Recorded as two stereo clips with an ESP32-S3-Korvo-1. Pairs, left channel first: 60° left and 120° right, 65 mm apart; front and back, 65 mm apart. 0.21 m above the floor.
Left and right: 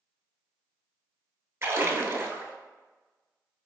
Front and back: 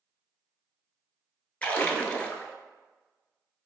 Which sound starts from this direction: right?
A splash, at 1.6 s.